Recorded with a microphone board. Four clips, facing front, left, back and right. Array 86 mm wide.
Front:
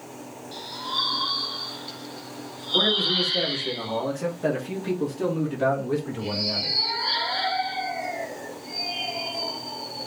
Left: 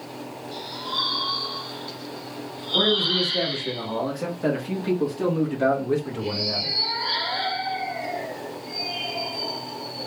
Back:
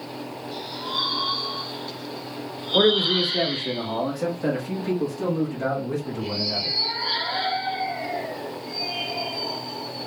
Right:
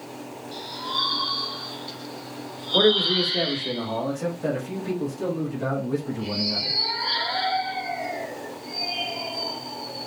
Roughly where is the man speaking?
Behind right.